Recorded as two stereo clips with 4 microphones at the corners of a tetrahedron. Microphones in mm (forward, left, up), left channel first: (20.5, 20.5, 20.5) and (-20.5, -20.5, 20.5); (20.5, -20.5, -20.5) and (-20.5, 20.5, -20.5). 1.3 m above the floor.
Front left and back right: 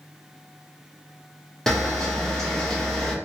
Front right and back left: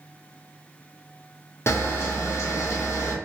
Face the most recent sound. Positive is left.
turn(degrees=-35)